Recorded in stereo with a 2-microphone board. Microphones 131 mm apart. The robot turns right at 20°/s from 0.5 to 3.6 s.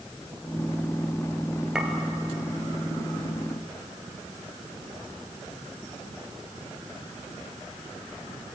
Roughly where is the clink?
Centre.